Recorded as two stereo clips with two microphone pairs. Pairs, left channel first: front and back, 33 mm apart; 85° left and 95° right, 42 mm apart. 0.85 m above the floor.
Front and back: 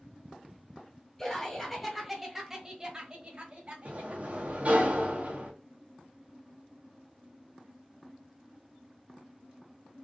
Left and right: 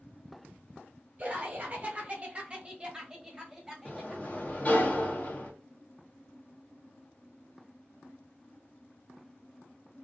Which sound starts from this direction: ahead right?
Laughter, at 1.2 s.